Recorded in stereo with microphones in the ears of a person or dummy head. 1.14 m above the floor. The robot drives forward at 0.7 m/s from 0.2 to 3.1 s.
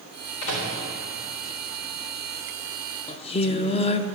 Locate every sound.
0.4 s a microwave: 70° left (ahead or behind), 2.5 m; by 0.7 s 65° left (ahead or behind), 2.5 m
3.1 s singing: 30° left (ahead or behind), 0.5 m